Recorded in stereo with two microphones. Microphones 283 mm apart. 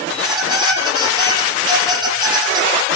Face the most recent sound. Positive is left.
turn(degrees=-15)  # may be behind; listen again after turning